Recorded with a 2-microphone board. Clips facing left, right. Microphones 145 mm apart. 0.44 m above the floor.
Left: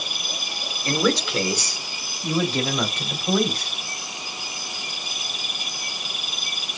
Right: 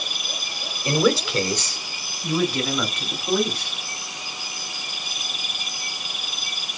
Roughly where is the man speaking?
Centre.